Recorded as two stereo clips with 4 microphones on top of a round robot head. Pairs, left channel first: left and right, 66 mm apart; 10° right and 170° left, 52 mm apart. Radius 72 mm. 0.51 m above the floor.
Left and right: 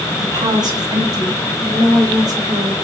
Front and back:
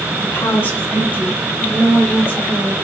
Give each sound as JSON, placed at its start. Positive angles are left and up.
{"t": 0.1, "sound": "a woman speaking", "azimuth_deg": -65, "distance_m": 5.0}